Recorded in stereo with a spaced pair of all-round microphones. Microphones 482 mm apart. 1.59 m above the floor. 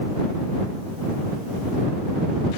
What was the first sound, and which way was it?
Only background noise.